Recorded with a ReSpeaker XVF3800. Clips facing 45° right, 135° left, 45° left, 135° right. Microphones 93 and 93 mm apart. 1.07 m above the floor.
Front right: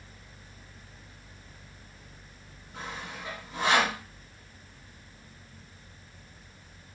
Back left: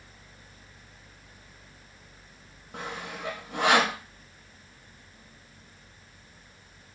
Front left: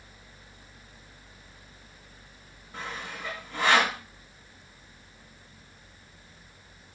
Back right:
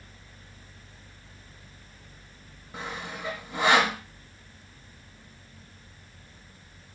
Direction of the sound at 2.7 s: 150° left.